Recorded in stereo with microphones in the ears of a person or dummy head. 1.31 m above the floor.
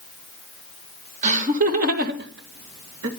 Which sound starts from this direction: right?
Laughter, at 1.2 s.